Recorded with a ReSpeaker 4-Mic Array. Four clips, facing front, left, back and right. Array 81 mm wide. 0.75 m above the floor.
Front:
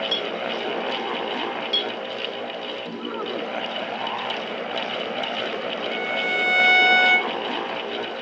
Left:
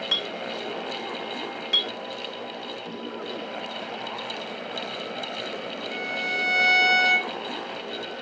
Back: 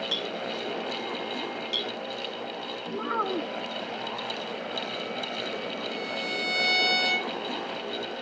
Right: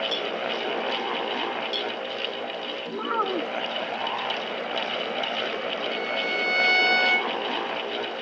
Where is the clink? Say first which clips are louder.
Right 4 dB, front 6 dB; 70° left.